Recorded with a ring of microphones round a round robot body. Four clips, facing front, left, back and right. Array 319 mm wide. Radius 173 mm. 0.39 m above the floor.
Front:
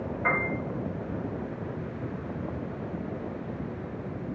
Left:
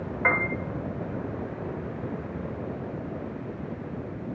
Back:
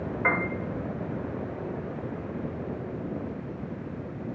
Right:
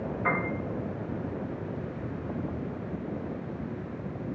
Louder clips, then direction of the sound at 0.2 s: Left 3 dB, back 1 dB; 110° left.